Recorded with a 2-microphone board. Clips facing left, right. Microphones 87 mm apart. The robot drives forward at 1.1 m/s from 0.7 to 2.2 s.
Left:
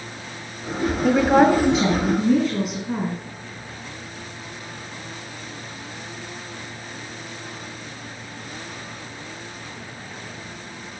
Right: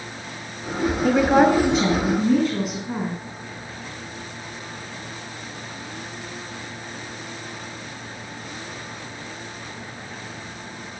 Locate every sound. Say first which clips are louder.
1.0 s a woman speaking: left 1 dB; centre (ahead or behind), 0.9 m